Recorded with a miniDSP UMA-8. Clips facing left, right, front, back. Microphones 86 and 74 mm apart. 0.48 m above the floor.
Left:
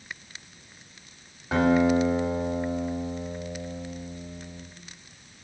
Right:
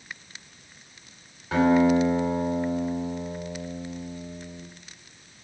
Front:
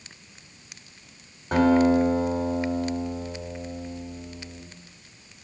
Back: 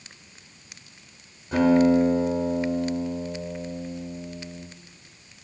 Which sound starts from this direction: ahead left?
A guitar, at 1.5 s.